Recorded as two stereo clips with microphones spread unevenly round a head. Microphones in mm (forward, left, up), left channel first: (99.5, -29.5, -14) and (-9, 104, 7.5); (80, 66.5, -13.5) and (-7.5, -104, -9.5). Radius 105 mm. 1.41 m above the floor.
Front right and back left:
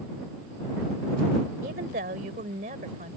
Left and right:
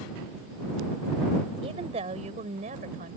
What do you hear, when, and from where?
1.6 s a woman speaking: straight behind; by 3.2 s 170° right